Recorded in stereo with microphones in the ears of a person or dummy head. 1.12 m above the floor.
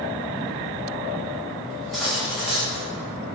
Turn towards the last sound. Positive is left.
turn(degrees=0)  # may be behind; listen again after turning